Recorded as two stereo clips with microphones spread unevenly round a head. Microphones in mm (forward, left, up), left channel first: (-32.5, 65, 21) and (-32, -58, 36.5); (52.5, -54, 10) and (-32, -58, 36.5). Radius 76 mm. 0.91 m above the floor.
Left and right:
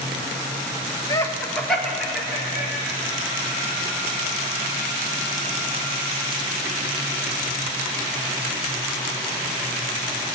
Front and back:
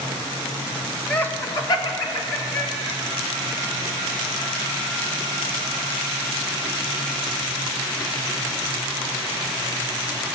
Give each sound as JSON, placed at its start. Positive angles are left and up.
{"t": 1.1, "sound": "laughter", "azimuth_deg": 50, "distance_m": 1.1}